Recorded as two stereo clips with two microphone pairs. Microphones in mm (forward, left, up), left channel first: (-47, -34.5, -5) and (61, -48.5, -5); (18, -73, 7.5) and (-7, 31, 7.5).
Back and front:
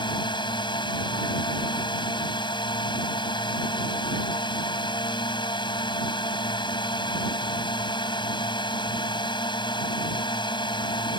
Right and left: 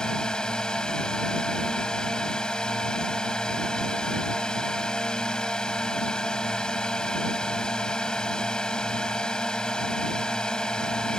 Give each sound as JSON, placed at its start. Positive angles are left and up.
{"t": 0.0, "sound": "a drone", "azimuth_deg": -160}